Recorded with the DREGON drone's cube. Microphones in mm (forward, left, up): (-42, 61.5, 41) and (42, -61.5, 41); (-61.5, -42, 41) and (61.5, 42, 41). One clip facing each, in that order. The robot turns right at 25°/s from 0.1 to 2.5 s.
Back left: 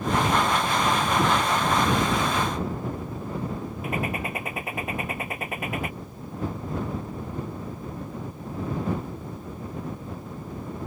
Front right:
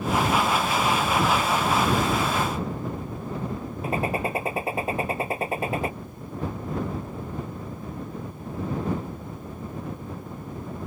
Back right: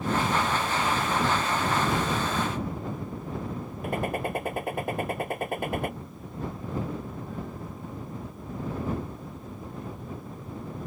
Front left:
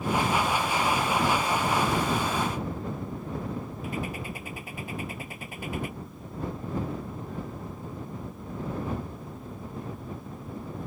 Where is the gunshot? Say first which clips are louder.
Front right 4 dB, back right 8 dB; 115° right.